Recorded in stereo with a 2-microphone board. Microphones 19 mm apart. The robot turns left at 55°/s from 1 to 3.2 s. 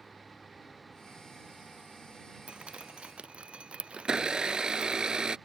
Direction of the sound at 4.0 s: 45° right (ahead or behind).